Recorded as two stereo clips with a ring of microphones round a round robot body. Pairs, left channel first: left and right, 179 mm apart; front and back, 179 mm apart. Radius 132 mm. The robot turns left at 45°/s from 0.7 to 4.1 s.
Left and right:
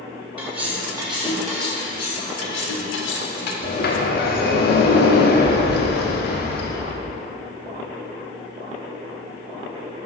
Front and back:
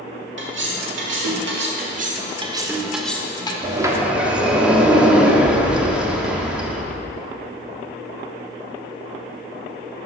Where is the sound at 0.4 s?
160° right, 1.3 m; by 1.7 s 160° left, 1.3 m.